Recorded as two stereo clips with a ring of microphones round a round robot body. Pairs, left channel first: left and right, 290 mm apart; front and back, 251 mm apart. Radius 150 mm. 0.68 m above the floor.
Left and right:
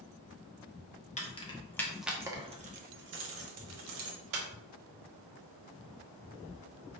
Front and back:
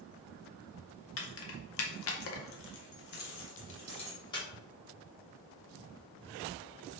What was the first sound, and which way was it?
Keys jangling, 25° left.